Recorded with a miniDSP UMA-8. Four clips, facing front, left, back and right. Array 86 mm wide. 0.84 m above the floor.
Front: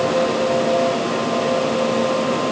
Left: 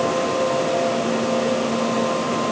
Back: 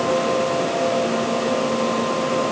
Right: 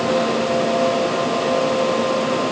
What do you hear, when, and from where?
Only background noise.